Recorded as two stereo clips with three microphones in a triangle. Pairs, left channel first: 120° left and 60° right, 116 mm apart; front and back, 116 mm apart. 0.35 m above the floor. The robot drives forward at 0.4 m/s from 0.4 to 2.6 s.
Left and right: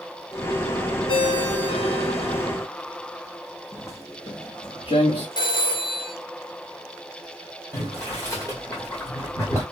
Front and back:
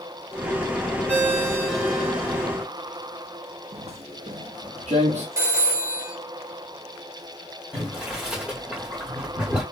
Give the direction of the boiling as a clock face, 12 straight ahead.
8 o'clock.